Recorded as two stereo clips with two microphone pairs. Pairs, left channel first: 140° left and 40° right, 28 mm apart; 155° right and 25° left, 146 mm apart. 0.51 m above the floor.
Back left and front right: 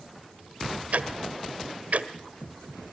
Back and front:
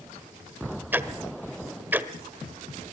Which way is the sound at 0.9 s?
50° right.